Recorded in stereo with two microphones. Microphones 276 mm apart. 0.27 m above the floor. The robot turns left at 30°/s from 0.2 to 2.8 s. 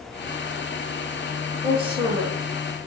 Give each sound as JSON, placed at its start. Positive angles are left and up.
{"t": 1.6, "sound": "a woman speaking", "side_deg": -25, "distance_m": 4.0}